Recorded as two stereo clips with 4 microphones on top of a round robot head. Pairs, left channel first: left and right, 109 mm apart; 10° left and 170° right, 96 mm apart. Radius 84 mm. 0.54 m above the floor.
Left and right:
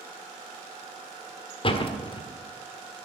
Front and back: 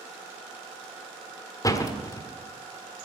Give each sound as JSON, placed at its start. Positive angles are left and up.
{"t": 1.6, "sound": "a door slam", "azimuth_deg": 60, "distance_m": 1.5}